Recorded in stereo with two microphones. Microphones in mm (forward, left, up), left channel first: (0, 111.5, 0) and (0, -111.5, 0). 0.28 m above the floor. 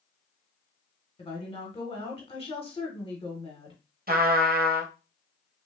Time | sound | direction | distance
1.2 | a woman speaking | 25° left (ahead or behind) | 1.2 m
4.1 | a trumpet | 40° right (ahead or behind) | 0.7 m